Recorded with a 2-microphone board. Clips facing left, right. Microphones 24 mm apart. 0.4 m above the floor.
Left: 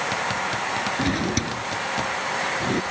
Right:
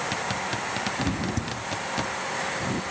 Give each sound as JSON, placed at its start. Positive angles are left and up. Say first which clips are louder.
{"t": 1.0, "sound": "a drawer", "louder": "left 5 dB", "side_deg": 65}